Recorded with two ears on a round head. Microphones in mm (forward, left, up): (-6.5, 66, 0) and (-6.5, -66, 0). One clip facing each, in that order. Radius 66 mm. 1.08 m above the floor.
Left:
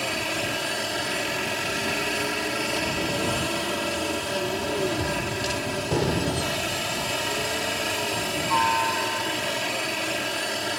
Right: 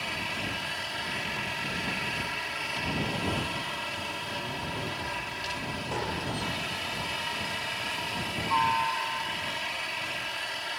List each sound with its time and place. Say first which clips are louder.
0.0 s a helicopter: left 8 dB; 60° left (ahead or behind)
5.0 s a gunshot: left 9 dB; 45° left (ahead or behind)